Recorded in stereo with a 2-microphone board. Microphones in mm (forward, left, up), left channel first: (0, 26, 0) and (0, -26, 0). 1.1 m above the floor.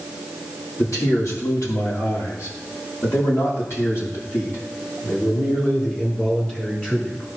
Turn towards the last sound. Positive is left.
turn(degrees=25)  # may be behind; listen again after turning